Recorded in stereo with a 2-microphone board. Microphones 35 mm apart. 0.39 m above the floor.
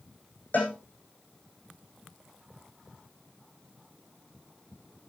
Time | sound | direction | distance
0.5 | a cowbell | 60° left (ahead or behind) | 5.5 m